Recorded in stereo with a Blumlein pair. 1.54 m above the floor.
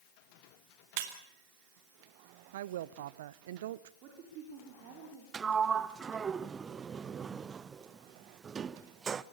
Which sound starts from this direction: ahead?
A sliding door, at 5.3 s.